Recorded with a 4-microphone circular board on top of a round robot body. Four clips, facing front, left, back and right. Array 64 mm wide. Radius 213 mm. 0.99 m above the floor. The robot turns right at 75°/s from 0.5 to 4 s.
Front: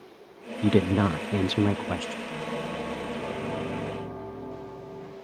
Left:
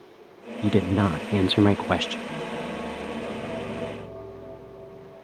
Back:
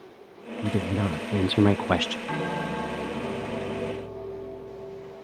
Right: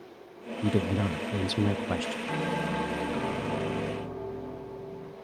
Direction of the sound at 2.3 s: 165° right.